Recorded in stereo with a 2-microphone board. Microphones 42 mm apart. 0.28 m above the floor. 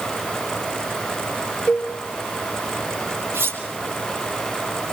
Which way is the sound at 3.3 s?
85° right.